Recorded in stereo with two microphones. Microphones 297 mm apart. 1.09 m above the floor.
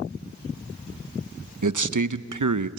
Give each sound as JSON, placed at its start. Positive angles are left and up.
{"t": 1.6, "sound": "a man speaking", "side_deg": -85, "distance_m": 0.7}